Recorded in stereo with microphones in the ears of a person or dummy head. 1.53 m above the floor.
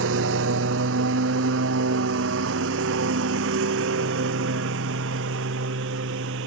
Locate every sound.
0.0 s a lawn mower: 75° right (ahead or behind)